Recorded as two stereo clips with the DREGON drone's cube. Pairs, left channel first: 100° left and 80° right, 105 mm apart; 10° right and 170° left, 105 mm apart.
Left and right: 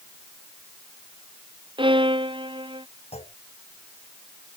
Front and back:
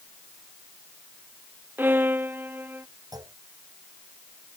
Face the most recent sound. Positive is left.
turn(degrees=115)